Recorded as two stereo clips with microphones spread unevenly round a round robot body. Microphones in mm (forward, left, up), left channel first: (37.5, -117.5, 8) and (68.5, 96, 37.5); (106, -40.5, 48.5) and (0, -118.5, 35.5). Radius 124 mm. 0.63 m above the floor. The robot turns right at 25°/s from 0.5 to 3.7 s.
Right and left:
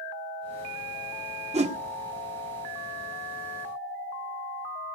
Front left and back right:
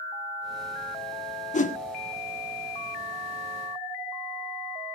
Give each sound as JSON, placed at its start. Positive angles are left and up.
{"t": 1.5, "sound": "a whoosh", "azimuth_deg": 20, "distance_m": 1.9}